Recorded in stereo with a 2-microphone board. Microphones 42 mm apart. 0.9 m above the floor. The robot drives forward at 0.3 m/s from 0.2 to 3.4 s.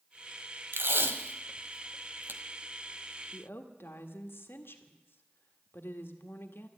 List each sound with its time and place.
0.7 s tape being pulled: 65° right (ahead or behind), 1.3 m; by 2.4 s 55° right (ahead or behind), 1.4 m
3.3 s a woman speaking: 65° left (ahead or behind), 1.5 m